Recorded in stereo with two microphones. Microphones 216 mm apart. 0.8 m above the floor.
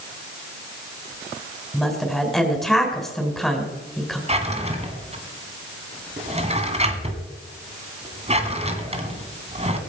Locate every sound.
1.7 s a woman speaking: centre (ahead or behind), 4 m
4.3 s a drawer: 30° right (ahead or behind), 2 m